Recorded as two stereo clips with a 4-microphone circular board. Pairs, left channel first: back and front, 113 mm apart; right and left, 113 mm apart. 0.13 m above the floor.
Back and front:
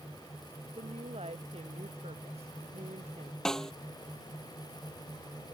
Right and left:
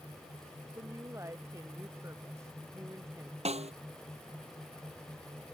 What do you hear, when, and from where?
0.7 s a woman speaking: 25° left
3.5 s a snare drum: 95° left